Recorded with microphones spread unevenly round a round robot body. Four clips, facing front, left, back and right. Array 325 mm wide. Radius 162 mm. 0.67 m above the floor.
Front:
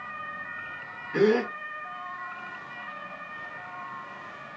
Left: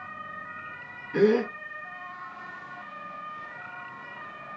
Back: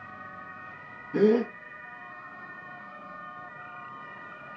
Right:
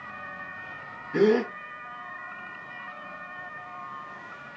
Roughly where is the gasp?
Behind.